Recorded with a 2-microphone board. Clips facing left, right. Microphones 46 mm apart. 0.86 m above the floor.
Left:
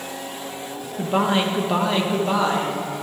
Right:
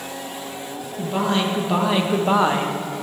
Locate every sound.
1.0 s a man speaking: 30° left (ahead or behind), 0.8 m; by 2.8 s 40° right (ahead or behind), 0.9 m